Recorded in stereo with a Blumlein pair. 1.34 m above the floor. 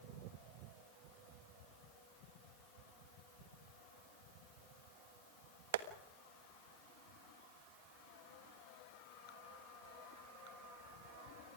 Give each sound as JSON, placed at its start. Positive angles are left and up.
{"t": 5.7, "sound": "tapping", "azimuth_deg": -55, "distance_m": 1.4}